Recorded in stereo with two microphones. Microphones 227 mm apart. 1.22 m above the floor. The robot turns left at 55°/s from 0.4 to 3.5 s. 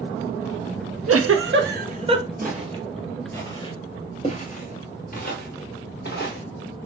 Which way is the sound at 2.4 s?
40° right (ahead or behind).